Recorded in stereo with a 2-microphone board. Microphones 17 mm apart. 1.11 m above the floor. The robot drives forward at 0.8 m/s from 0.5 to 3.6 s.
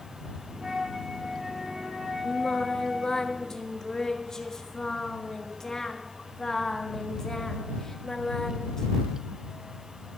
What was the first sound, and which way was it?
A flute, 45° right (ahead or behind).